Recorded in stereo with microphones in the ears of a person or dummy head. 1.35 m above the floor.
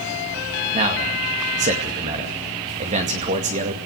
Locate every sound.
0.7 s a man speaking: 40° right (ahead or behind), 2 m